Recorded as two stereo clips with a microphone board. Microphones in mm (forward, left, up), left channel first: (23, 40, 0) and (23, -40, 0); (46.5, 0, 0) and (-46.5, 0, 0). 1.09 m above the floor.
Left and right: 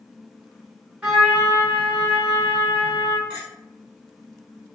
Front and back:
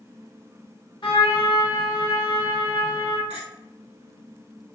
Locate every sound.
1.0 s a trumpet: 15° right, 1.8 m
3.3 s a clink: 25° right, 1.6 m